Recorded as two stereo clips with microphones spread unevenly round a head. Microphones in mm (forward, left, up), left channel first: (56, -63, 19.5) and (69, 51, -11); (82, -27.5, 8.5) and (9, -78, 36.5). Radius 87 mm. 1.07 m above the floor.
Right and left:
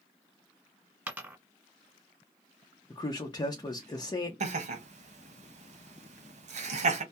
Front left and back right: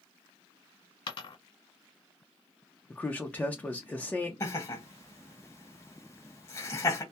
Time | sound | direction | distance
1.1 | a dropped coin | straight ahead | 1.5 m
2.9 | a man speaking | 40° right | 0.6 m
4.4 | laughter | 95° left | 1.0 m